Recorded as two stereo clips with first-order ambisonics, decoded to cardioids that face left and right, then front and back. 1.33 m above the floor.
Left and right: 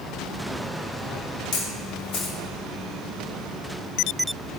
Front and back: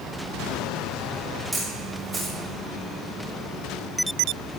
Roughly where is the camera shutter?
Left.